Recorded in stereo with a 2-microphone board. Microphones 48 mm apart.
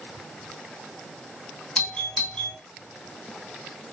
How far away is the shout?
I don't hear a shout.